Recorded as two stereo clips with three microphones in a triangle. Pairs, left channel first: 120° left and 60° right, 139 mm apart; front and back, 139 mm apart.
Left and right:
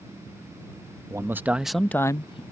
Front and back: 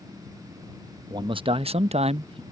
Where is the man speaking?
125° right; by 2.4 s 150° left.